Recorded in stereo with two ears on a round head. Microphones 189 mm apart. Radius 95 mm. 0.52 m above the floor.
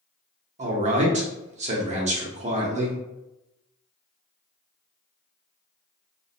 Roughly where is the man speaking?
Right.